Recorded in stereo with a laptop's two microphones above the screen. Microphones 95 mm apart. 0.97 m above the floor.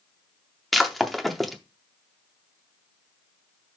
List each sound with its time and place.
0.7 s breaking glass: centre (ahead or behind), 0.6 m